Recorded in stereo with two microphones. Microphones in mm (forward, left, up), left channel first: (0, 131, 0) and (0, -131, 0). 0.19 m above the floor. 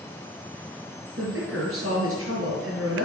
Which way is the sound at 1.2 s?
60° right (ahead or behind).